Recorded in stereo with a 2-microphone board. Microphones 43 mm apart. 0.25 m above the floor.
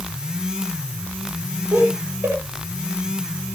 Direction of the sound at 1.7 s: 65° right (ahead or behind).